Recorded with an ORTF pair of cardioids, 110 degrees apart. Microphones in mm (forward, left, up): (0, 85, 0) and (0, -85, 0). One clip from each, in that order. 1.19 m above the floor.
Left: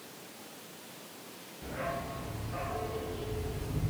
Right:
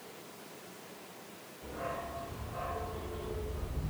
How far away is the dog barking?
About 6.5 m.